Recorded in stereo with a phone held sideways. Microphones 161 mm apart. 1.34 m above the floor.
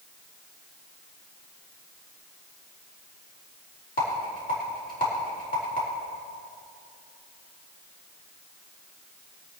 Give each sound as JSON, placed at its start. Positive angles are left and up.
{"t": 4.0, "sound": "a rattle", "side_deg": 60, "distance_m": 4.5}